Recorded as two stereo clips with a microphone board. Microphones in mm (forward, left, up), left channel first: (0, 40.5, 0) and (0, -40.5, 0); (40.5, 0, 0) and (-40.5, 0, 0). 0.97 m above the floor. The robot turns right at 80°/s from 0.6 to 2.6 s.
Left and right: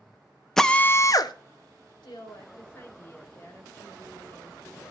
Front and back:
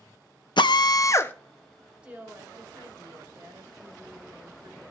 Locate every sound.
0.6 s a drill: 5° left, 0.7 m; by 1.3 s 65° left, 0.7 m
2.0 s a woman speaking: 105° left, 3 m; by 4.9 s 150° left, 3 m